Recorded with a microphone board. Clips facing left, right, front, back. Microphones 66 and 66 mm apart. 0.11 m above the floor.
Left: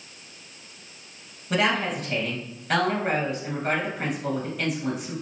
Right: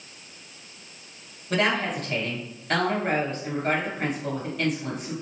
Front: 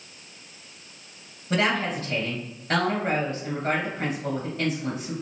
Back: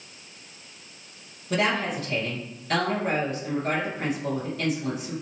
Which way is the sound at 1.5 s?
5° left.